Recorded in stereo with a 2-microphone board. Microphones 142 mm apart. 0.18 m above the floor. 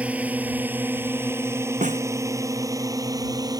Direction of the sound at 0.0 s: 10° right (ahead or behind).